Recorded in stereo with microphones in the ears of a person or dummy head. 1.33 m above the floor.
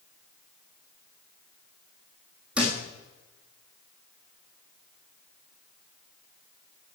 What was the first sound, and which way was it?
A thud, 5° right (ahead or behind).